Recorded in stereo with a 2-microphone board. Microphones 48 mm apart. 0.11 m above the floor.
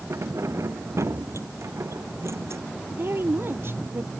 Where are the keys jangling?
80° right; by 2.6 s 75° right (ahead or behind).